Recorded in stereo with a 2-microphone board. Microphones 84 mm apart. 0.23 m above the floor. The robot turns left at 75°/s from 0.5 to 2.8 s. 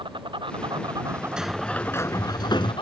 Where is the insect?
95° right; by 2.8 s 95° left.